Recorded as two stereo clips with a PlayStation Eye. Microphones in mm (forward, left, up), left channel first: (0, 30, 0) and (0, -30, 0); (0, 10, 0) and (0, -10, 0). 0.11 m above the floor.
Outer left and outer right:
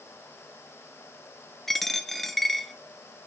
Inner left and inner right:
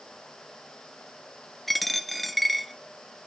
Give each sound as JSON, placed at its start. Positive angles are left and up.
{"t": 1.7, "sound": "a dropped coin", "side_deg": 5, "distance_m": 0.6}